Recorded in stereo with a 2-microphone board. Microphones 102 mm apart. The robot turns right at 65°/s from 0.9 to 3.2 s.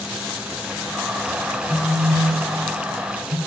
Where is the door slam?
I don't hear a door slam.